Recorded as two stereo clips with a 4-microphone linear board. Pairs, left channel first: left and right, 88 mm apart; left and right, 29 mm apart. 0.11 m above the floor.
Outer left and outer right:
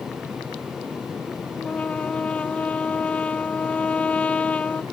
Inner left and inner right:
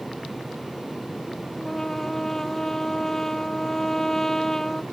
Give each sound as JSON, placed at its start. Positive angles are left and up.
{"t": 1.6, "sound": "a trumpet", "side_deg": 15}